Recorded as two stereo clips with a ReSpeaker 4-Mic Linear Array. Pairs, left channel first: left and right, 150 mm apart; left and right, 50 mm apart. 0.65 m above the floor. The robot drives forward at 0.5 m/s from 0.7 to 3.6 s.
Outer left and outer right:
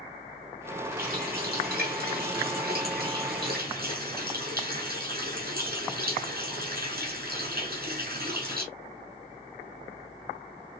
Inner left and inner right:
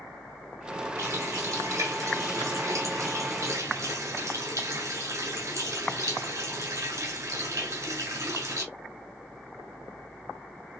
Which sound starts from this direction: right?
A running tap, at 1.0 s.